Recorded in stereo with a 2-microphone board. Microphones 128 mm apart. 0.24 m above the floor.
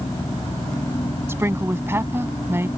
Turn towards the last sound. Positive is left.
turn(degrees=-20)  # may be behind; listen again after turning